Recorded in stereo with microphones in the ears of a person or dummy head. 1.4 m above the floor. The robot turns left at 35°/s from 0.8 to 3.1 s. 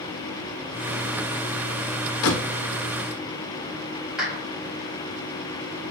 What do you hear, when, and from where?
2.2 s a door slam: 65° left (ahead or behind), 1.3 m
4.2 s a clap: 5° right (ahead or behind), 4.5 m